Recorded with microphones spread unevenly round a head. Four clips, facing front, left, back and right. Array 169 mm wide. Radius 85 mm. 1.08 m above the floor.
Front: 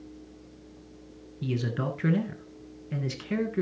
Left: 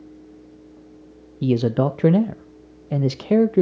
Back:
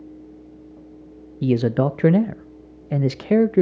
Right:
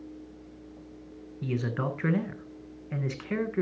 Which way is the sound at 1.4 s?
135° left.